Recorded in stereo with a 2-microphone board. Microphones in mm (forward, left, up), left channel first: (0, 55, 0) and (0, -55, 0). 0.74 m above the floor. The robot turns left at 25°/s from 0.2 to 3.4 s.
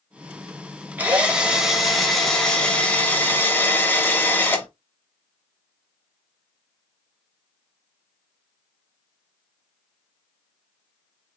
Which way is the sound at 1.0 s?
155° right.